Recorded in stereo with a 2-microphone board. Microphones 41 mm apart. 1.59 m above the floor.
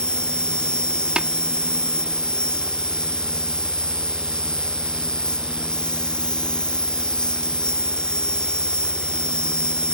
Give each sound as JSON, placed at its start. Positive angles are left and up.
{"t": 0.0, "sound": "an insect", "side_deg": 20}
{"t": 1.2, "sound": "tapping", "side_deg": -25}